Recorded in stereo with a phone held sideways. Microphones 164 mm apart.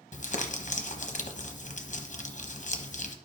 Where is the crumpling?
50° left (ahead or behind), 0.9 m.